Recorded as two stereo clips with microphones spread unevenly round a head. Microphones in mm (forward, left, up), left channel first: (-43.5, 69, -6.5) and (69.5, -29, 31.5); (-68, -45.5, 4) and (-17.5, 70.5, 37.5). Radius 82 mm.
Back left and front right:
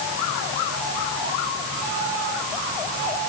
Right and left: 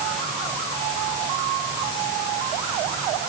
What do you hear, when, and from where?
Only background noise.